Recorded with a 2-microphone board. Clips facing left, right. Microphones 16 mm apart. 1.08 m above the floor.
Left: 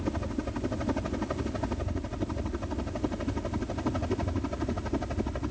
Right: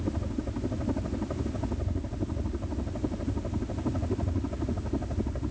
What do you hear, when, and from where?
0.0 s a helicopter: 60° left (ahead or behind)